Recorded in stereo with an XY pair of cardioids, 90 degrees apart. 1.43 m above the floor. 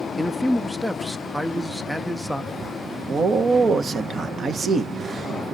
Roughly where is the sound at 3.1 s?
Ahead right.